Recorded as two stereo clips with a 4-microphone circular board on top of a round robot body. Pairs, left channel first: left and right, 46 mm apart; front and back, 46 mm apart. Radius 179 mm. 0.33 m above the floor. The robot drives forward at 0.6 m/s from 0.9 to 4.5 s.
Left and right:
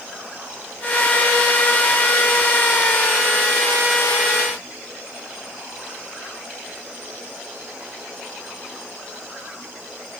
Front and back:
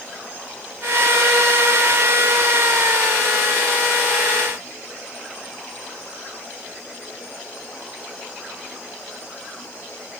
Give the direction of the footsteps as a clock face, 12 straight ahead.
I don't hear footsteps.